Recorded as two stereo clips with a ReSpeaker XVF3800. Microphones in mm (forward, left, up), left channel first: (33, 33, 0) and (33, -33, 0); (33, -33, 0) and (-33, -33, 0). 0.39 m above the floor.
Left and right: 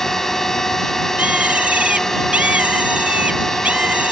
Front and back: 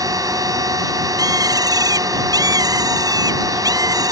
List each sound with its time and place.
0.0 s a drone: 175° left
1.2 s a bird: 160° right